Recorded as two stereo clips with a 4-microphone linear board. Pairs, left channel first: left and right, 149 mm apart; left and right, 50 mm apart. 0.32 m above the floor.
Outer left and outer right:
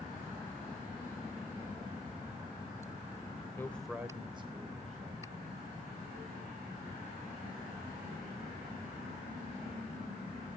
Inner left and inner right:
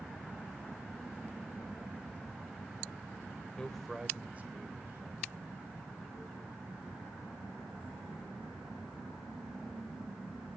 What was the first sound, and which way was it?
A man speaking, 15° left (ahead or behind).